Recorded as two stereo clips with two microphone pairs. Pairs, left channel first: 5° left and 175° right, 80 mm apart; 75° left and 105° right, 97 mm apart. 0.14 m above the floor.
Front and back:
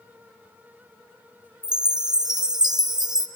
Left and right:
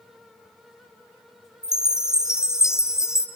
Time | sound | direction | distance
1.6 | a chime | 170° left | 1.3 m